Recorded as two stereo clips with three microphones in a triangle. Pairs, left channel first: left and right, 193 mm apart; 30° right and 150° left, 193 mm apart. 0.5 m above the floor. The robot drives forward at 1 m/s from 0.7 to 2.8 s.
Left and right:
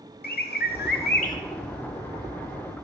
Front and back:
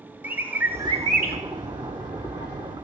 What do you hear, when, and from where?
0.2 s a bird: 70° left, 0.7 m; by 1.4 s 130° left, 0.8 m